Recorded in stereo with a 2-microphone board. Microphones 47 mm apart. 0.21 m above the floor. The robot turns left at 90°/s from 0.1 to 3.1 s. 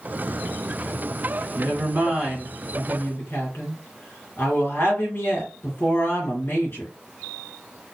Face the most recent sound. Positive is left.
turn(degrees=115)